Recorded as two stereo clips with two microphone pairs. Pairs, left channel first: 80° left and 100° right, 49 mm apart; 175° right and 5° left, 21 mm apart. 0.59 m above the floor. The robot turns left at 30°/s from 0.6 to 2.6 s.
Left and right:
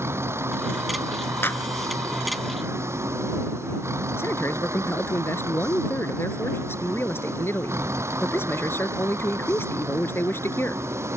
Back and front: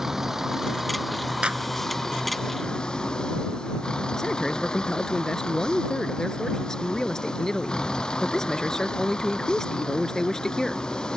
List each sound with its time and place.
0.0 s a vehicle: 70° right; by 11.2 s 130° right
1.4 s a clap: 35° left; by 1.7 s 25° left
4.2 s a man speaking: 120° left